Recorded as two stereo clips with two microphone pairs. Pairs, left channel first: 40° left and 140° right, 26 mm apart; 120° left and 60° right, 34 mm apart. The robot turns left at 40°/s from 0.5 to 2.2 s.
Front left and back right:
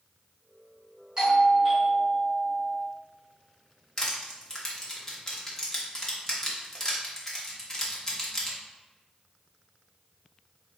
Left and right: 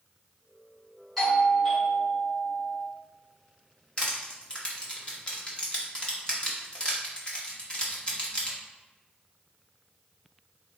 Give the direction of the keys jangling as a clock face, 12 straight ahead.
No keys jangling in this recording.